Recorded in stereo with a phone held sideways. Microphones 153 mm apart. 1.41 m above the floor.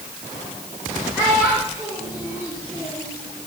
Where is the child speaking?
10° right (ahead or behind), 4 m; by 3.1 s 25° left (ahead or behind), 3.5 m.